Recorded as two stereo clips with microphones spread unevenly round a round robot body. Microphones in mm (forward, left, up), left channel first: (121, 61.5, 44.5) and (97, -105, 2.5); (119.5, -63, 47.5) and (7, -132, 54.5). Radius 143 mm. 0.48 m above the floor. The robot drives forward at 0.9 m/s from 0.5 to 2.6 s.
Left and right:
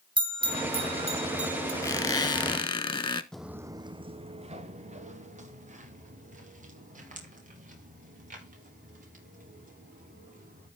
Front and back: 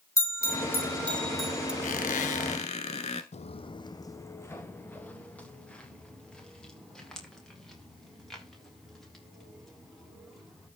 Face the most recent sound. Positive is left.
turn(degrees=-60)